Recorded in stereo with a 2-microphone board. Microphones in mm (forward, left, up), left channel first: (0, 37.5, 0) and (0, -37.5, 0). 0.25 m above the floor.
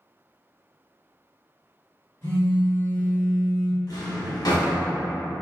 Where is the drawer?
60° left (ahead or behind), 1.0 m.